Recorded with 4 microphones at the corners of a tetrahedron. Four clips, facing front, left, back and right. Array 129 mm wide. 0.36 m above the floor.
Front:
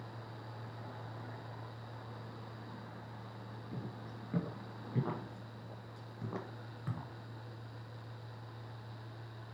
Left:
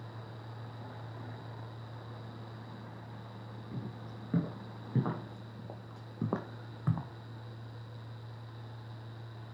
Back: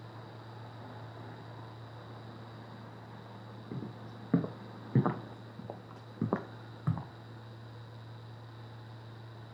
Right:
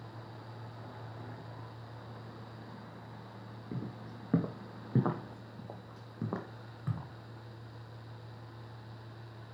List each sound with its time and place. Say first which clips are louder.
3.7 s footsteps: right 2 dB, back 4 dB; 135° right, 3 m; by 7.1 s 130° left, 1.7 m